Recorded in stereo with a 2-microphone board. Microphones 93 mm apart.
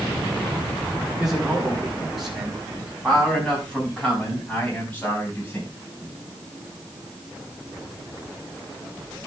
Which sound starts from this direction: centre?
A man speaking, at 1.2 s.